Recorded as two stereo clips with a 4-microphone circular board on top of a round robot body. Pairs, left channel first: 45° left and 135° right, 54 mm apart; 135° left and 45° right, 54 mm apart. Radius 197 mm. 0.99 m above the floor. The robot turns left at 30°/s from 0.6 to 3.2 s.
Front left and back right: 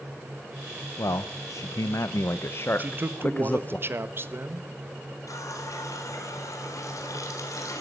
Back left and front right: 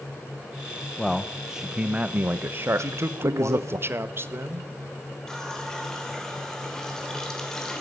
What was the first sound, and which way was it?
A man speaking, 55° left.